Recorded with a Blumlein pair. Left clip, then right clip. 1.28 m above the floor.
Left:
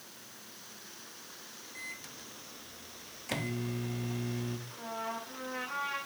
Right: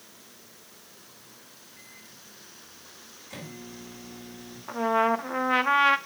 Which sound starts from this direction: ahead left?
A microwave, at 1.8 s.